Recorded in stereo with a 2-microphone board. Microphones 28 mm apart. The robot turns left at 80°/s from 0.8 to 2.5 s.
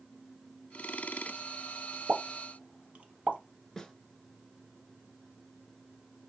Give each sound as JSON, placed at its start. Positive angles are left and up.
{"t": 2.1, "sound": "a pop", "side_deg": -75, "distance_m": 1.1}
{"t": 3.8, "sound": "a snare drum", "side_deg": 15, "distance_m": 0.8}